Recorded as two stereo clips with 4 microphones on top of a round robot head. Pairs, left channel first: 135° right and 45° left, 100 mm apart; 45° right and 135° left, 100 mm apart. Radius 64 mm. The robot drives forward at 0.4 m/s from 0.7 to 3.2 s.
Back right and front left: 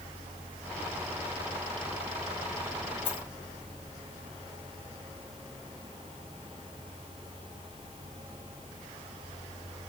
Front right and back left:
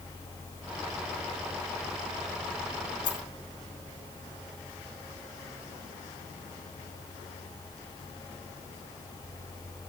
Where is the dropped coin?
90° right, 5.5 m.